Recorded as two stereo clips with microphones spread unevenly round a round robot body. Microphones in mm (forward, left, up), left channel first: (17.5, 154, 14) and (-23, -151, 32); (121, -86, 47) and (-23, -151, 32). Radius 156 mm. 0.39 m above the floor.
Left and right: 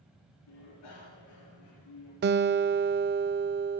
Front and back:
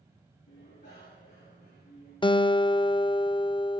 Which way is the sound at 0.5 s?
65° left.